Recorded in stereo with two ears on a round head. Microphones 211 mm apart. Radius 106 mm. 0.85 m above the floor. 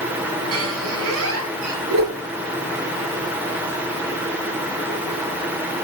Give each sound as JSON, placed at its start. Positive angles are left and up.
{"t": 0.5, "sound": "a squeak", "side_deg": -70, "distance_m": 5.5}
{"t": 1.9, "sound": "a whoosh", "side_deg": -80, "distance_m": 9.5}